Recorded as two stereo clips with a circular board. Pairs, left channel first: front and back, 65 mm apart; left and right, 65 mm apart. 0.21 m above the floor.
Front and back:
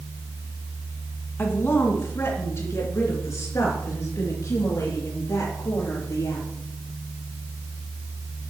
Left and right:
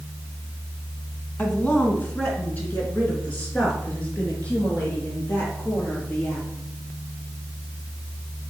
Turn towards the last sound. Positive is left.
turn(degrees=25)